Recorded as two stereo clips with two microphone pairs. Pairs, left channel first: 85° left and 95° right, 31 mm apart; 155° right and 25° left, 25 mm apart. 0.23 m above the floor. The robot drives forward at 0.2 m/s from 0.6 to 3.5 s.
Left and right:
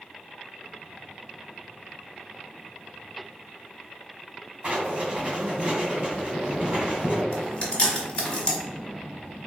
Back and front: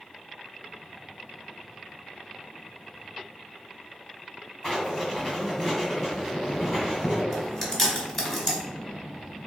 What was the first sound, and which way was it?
Writing, 95° right.